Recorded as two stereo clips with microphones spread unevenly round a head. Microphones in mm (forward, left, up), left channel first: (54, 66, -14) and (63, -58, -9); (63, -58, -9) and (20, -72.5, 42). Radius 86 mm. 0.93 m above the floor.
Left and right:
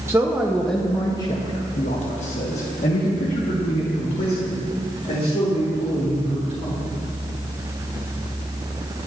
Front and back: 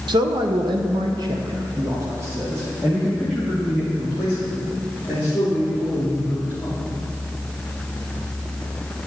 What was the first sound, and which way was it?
A man speaking, 155° right.